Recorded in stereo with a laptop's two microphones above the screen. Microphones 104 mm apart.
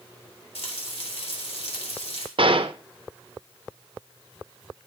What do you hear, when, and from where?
0.6 s frying: 65° left (ahead or behind), 1.8 m
2.4 s a gunshot: 55° right (ahead or behind), 0.7 m